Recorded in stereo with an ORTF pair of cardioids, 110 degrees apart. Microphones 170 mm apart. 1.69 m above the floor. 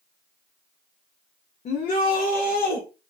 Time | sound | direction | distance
1.6 | a shout | 40° left | 0.5 m